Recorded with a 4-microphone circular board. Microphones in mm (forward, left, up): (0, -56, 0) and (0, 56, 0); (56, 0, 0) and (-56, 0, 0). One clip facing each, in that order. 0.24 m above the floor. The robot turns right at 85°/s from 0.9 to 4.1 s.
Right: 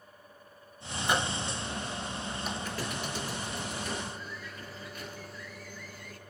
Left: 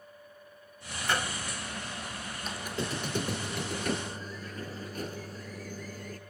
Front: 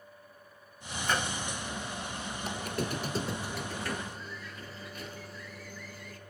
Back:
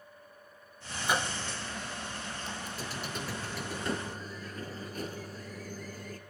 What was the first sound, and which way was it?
A microwave, 130° right.